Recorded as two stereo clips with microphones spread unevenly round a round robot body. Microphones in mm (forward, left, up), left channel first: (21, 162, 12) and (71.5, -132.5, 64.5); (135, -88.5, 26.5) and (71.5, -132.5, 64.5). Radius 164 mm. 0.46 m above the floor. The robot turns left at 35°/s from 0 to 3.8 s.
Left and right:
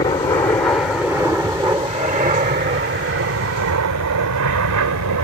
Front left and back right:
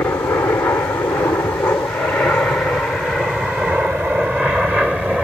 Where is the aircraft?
45° left; by 5.2 s 60° right.